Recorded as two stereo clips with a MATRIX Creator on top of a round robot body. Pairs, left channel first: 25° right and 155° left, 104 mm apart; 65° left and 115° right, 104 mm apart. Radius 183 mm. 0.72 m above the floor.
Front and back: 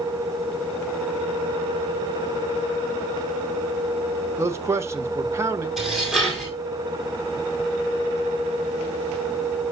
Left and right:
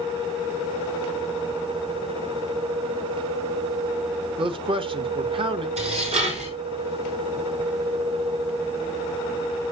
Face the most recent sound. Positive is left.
turn(degrees=-115)